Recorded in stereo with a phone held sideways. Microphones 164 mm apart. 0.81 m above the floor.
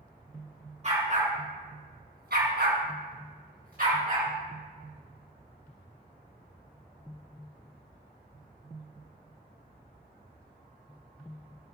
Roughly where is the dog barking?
Right.